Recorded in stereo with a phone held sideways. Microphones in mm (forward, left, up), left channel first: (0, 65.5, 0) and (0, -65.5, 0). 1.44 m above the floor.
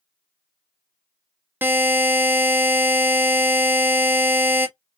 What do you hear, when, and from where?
1.6 s a buzzer: 15° right (ahead or behind), 0.9 m